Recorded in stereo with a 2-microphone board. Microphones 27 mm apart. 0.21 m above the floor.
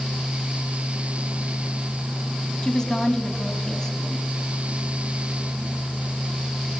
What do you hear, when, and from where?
2.6 s a woman speaking: 25° left (ahead or behind), 1.4 m